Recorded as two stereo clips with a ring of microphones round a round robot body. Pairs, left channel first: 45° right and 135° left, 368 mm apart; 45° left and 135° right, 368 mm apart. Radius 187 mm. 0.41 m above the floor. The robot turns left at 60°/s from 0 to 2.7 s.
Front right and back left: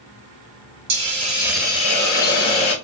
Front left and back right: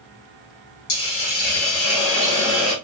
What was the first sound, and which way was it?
A hiss, 85° left.